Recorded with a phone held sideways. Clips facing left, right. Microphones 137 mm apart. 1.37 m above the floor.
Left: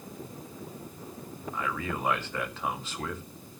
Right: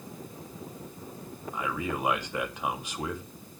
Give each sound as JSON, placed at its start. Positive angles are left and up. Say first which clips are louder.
{"t": 1.5, "sound": "a man speaking", "louder": "right 2 dB", "side_deg": -15, "distance_m": 2.5}